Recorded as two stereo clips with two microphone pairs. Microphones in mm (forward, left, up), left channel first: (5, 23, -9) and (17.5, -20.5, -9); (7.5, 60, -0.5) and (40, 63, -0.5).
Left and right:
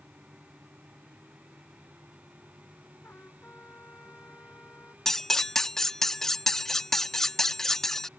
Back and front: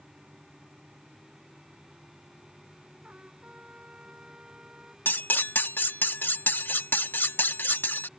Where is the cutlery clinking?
175° right.